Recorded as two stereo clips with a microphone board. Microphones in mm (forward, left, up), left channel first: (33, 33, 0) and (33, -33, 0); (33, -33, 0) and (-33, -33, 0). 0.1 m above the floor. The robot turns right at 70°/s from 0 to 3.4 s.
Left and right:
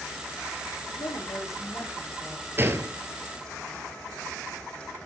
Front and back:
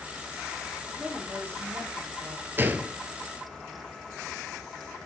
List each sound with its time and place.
0.9 s a woman speaking: 85° left, 5 m; by 2.5 s 165° right, 5 m
2.6 s a gunshot: 135° right, 1.1 m; by 3.0 s 105° right, 1.1 m